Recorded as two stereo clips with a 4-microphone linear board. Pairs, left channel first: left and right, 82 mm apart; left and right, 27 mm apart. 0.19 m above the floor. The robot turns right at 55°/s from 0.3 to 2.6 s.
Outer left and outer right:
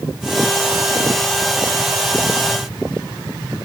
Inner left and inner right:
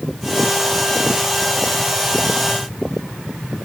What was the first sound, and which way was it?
Only background noise.